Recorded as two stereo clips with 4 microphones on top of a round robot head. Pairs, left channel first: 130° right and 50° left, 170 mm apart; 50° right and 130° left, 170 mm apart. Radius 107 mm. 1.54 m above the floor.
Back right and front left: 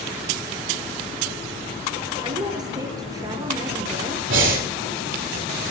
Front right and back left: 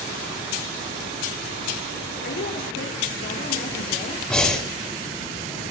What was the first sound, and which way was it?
A woman speaking, 20° right.